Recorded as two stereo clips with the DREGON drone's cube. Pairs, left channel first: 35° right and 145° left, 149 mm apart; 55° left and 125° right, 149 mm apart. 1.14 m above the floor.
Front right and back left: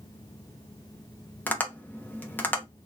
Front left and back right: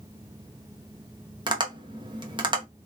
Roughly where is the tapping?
Right.